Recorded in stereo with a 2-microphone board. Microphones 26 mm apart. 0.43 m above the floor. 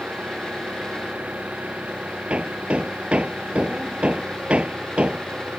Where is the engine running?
70° right (ahead or behind).